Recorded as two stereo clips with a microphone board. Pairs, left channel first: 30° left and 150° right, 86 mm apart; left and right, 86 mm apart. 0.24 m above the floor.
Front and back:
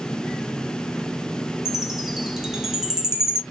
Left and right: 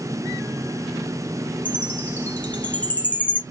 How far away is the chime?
About 0.8 m.